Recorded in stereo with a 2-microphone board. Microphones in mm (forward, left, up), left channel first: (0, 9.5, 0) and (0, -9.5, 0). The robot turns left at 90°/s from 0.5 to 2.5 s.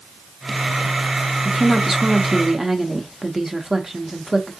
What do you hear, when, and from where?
1.4 s a woman speaking: 5° right (ahead or behind), 0.8 m; by 4.5 s 25° right (ahead or behind), 0.8 m